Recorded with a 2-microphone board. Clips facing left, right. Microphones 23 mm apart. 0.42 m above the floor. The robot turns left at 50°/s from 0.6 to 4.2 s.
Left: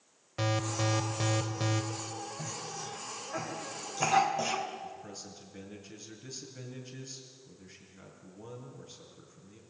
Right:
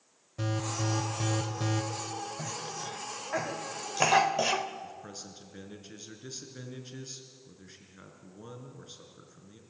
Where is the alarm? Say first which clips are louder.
Left 2 dB; 75° left, 1.6 m; by 1.8 s 10° left, 1.6 m.